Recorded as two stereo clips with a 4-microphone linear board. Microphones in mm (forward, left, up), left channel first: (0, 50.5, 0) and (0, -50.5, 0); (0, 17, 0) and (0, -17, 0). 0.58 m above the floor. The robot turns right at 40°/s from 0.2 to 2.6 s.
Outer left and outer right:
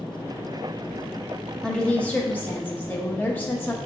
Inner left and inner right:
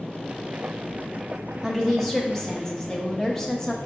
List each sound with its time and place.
1.6 s a woman speaking: 5° left (ahead or behind), 0.6 m; by 3.8 s 20° left (ahead or behind), 0.6 m